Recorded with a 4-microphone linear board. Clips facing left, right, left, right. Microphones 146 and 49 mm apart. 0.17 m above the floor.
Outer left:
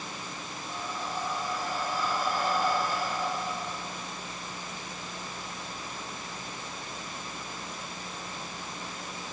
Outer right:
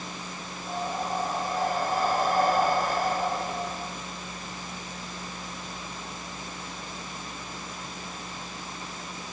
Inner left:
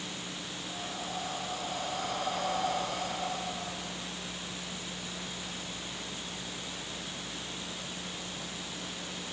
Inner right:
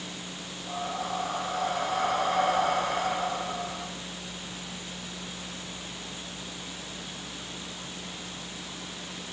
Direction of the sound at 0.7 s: 50° right (ahead or behind).